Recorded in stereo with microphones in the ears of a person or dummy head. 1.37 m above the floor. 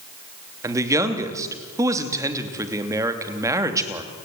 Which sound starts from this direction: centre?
A man speaking, at 0.6 s.